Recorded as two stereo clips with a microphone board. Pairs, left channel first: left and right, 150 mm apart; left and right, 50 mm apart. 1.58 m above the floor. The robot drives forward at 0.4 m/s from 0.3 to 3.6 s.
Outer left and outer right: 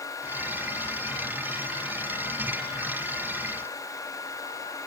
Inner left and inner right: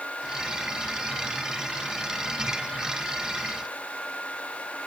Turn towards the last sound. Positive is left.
No sound to turn to.